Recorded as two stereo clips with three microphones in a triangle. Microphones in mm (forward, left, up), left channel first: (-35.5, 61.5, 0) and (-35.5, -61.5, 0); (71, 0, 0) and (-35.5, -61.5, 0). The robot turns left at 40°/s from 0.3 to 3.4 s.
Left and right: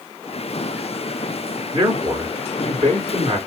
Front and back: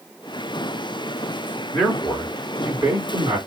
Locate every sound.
1.7 s a man speaking: 40° right, 2.5 m; by 3.4 s 105° right, 2.5 m